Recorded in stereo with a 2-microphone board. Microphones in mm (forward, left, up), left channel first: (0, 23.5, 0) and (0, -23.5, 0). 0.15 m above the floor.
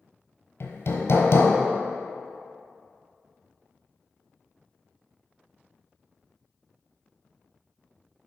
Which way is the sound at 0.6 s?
65° left (ahead or behind).